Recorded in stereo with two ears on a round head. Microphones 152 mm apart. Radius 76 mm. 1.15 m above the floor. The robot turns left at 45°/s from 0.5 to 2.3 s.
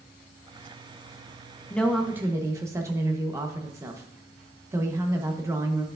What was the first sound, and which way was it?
A woman speaking, 10° left (ahead or behind).